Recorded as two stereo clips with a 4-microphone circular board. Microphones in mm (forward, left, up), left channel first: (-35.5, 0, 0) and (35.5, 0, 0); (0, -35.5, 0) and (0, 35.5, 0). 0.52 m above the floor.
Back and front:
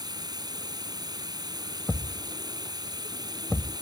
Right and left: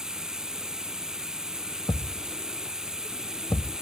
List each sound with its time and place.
0.0 s running water: 10° left
1.9 s a thud: 100° right